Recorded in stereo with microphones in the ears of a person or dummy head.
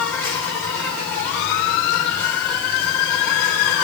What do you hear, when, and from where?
0.0 s an insect: 5° left (ahead or behind), 6 m